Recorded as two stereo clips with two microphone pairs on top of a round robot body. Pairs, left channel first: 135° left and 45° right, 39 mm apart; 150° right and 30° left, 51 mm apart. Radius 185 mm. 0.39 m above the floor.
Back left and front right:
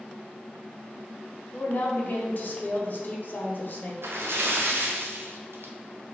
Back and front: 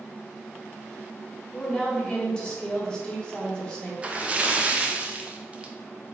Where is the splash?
30° right, 0.6 m.